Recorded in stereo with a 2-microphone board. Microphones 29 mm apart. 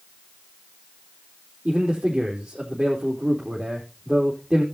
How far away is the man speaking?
About 4 m.